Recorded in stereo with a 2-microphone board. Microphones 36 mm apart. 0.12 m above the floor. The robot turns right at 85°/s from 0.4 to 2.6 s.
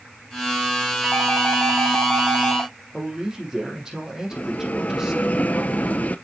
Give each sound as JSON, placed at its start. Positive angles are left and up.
{"t": 1.0, "sound": "a doorbell", "azimuth_deg": -150, "distance_m": 6.5}
{"t": 2.9, "sound": "a man speaking", "side_deg": -15, "distance_m": 5.0}
{"t": 4.3, "sound": "a bell", "side_deg": 50, "distance_m": 0.7}